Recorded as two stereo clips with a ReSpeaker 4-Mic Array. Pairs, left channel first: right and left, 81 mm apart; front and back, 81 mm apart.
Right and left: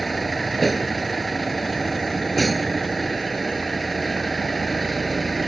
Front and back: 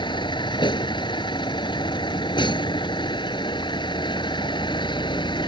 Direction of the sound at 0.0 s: Straight ahead.